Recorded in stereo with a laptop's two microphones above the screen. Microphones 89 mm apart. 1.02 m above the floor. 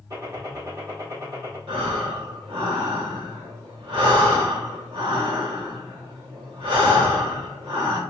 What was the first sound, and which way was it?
A gunshot, 35° right (ahead or behind).